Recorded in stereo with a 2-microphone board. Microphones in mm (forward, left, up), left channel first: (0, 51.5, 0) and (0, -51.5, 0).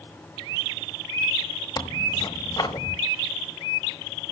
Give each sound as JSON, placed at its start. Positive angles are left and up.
{"t": 1.8, "sound": "tearing paper", "side_deg": 40, "distance_m": 1.2}